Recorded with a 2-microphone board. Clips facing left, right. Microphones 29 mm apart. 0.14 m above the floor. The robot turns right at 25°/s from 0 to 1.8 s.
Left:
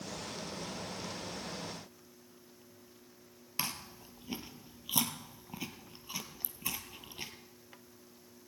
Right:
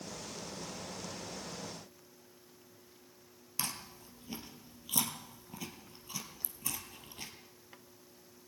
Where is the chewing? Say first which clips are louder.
Left 2 dB; 25° left (ahead or behind), 1.7 m.